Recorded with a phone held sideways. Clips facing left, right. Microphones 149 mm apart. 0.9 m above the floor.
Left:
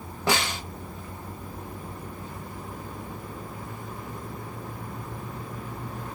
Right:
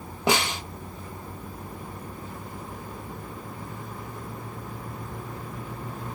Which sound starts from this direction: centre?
A snare drum, at 0.3 s.